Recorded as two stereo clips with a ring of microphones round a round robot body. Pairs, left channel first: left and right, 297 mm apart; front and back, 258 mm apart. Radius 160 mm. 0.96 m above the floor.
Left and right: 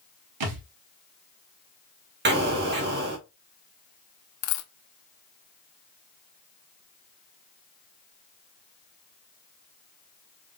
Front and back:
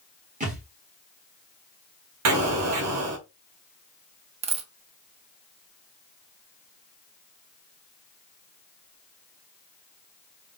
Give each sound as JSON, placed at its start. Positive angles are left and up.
{"t": 0.4, "sound": "a thud", "azimuth_deg": -115, "distance_m": 1.3}
{"t": 2.2, "sound": "an explosion", "azimuth_deg": -145, "distance_m": 1.4}
{"t": 4.4, "sound": "a dropped coin", "azimuth_deg": 115, "distance_m": 0.6}